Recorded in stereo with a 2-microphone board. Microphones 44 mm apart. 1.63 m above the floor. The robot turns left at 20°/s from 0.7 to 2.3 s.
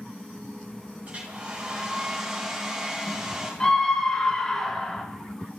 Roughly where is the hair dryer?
Right.